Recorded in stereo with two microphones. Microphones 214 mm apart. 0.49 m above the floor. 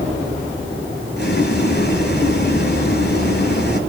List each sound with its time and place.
1.2 s boiling: 55° left (ahead or behind), 2.5 m